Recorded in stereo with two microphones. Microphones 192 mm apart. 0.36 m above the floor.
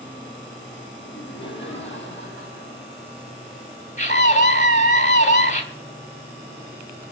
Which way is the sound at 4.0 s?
35° left (ahead or behind).